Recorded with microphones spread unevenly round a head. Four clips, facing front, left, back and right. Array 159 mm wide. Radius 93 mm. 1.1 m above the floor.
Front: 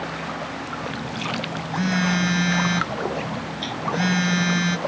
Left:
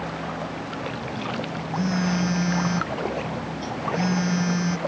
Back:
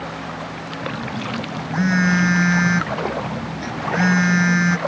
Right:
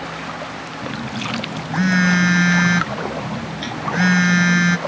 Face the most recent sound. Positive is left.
turn(degrees=-100)